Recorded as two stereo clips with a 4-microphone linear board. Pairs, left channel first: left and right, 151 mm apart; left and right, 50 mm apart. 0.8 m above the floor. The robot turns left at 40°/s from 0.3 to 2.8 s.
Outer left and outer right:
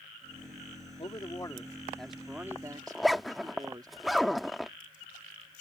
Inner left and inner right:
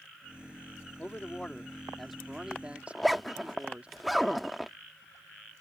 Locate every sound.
1.0 s a man speaking: 45° left; by 3.9 s 30° right
2.9 s a zipper: centre (ahead or behind)